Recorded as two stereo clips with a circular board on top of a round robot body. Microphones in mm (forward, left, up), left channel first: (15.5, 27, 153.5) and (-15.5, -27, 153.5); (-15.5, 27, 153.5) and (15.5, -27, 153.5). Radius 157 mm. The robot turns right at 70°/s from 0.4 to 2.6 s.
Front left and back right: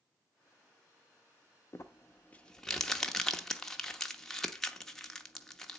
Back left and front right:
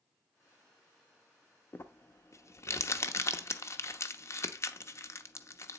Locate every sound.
1.7 s crumpling: 80° left, 0.9 m; by 5.8 s 140° left, 0.9 m